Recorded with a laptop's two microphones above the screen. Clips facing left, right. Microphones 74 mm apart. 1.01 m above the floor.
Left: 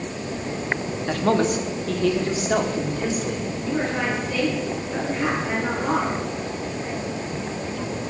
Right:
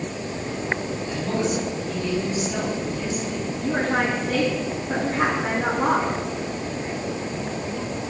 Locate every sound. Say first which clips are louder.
1.1 s a man speaking: left 5 dB; 70° left (ahead or behind), 2 m; by 3.5 s 60° left (ahead or behind), 4 m
3.6 s a woman speaking: right 3 dB; 85° right, 10 m